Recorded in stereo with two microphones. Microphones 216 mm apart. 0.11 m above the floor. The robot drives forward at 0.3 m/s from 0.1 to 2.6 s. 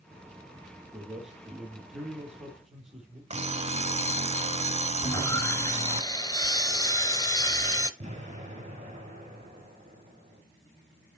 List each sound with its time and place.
0.9 s a man speaking: 5° right (ahead or behind), 2.5 m
3.3 s an alarm clock: 30° right (ahead or behind), 0.5 m
5.0 s sawing: 20° left (ahead or behind), 0.7 m
8.0 s an explosion: 30° right (ahead or behind), 2.5 m